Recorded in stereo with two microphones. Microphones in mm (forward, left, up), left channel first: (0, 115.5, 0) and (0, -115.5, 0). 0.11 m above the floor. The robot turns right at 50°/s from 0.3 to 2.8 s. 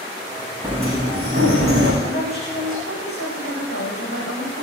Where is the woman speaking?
30° left, 6.5 m; by 4.6 s 65° left, 6.5 m.